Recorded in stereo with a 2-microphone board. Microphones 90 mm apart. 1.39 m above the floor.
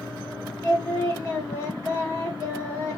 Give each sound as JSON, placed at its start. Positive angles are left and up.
{"t": 0.6, "sound": "singing", "side_deg": 25, "distance_m": 1.3}